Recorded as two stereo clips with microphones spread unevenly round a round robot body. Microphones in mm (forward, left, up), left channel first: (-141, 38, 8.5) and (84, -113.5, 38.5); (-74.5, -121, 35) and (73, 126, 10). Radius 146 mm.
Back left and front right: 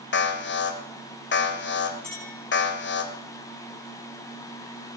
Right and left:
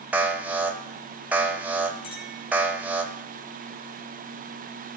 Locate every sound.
0.1 s an alarm: 135° left, 1.9 m
2.0 s a clink: 155° right, 7 m